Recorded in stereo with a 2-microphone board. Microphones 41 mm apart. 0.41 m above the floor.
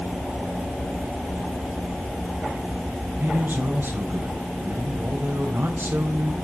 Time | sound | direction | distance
3.2 | a man speaking | 55° right (ahead or behind) | 2.5 m